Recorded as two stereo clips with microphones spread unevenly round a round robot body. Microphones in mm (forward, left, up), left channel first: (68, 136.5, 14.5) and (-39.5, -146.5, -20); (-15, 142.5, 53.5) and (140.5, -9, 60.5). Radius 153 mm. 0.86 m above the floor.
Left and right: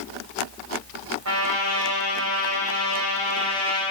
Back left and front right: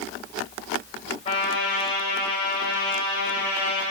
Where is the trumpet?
155° right, 2.5 m.